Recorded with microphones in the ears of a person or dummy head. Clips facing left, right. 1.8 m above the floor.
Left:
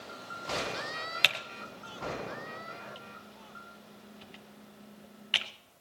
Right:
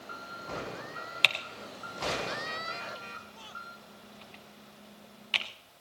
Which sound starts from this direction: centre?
Typing on a keyboard, at 1.2 s.